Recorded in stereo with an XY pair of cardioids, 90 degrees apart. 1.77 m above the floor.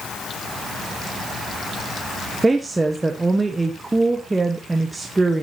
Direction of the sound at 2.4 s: 20° right.